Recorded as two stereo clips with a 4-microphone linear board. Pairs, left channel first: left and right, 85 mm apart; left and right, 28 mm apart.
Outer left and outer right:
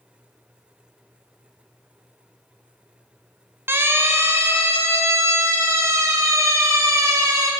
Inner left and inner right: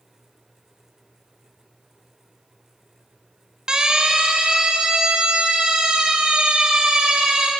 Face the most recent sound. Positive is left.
turn(degrees=-40)  # may be behind; listen again after turning